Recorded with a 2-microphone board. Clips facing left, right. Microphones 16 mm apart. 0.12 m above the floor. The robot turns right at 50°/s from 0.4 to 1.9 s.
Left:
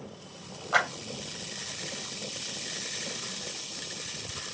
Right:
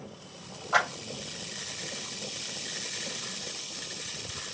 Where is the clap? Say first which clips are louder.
Even; 10° left (ahead or behind), 2.5 m; by 0.9 s 15° left (ahead or behind), 2.5 m.